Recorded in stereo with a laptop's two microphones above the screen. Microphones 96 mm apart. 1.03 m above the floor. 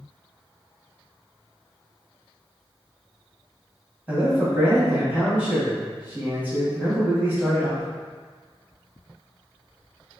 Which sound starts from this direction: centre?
A man speaking, at 4.1 s.